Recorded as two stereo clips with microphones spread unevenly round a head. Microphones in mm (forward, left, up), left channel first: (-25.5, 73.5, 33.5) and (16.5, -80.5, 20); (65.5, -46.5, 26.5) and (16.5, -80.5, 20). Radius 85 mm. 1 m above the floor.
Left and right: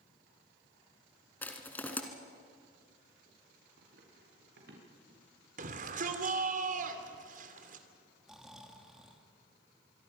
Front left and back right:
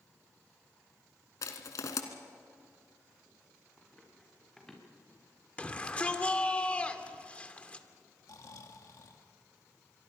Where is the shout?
35° right, 2.5 m.